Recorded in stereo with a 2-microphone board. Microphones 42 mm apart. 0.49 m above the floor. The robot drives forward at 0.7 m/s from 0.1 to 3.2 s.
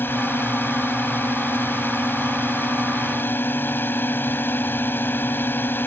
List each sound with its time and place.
0.0 s a drone: 65° left (ahead or behind); by 5.9 s 60° left (ahead or behind)